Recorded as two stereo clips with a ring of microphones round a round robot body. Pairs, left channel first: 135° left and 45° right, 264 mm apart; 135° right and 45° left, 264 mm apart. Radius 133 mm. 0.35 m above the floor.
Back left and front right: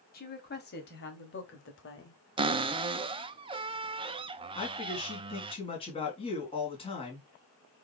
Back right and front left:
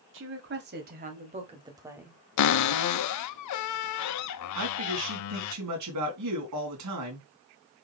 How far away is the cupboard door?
About 0.6 m.